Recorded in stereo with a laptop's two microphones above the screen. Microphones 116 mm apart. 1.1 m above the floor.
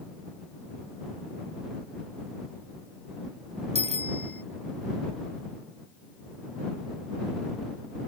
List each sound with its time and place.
3.8 s a bicycle bell: 70° right (ahead or behind)